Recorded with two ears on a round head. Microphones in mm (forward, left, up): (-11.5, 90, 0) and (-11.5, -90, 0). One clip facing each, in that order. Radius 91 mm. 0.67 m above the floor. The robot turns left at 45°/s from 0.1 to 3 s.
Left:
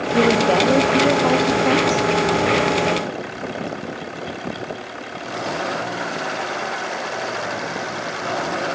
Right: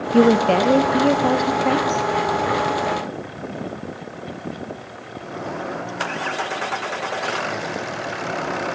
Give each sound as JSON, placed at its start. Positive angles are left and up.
{"t": 0.1, "sound": "a woman speaking", "azimuth_deg": -120, "distance_m": 0.7}